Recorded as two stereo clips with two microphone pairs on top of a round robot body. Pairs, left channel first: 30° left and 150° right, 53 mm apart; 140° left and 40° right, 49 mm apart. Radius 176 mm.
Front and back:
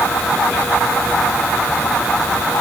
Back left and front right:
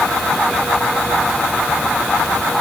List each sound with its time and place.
Only background noise.